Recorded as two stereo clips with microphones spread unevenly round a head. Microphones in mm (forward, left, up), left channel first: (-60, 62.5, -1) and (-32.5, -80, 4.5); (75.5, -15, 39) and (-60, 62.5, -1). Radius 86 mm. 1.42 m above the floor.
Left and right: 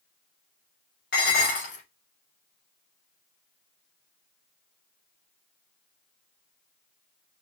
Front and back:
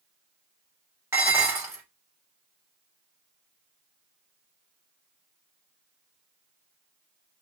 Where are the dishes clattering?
70° left, 3 m.